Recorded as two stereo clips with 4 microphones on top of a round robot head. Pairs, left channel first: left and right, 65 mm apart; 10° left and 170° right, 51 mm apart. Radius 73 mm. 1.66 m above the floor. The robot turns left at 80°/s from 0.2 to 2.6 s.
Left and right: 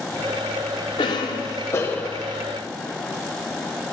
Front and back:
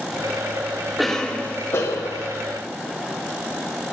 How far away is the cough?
About 0.6 m.